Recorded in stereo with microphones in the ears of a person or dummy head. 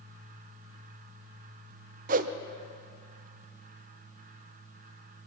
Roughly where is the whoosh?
Right.